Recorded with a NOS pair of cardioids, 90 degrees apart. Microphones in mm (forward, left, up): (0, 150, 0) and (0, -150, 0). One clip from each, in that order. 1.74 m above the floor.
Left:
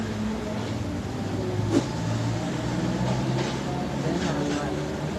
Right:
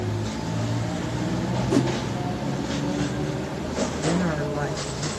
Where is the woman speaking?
30° right, 1.7 m.